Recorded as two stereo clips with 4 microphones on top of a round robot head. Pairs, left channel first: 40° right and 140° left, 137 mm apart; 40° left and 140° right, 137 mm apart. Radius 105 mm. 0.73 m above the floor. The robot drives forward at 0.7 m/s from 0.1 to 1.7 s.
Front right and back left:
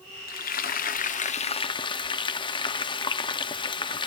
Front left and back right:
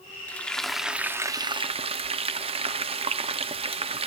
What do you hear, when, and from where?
0.3 s frying: 40° right, 1.2 m; by 4.1 s 95° right, 0.8 m